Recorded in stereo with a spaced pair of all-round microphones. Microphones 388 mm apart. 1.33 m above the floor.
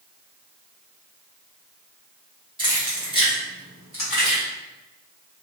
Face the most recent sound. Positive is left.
turn(degrees=75)  # may be behind; listen again after turning